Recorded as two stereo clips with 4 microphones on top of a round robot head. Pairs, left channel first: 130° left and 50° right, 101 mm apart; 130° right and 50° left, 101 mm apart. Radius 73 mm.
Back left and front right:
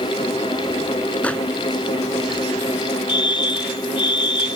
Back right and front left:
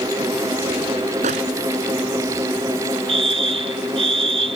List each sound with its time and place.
1.2 s a microwave: 50° left
3.1 s a fire alarm: 85° left